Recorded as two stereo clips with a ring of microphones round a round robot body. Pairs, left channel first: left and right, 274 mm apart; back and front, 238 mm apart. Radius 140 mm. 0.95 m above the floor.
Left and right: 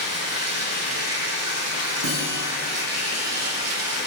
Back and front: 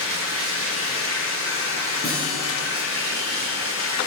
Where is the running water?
50° right, 5 m.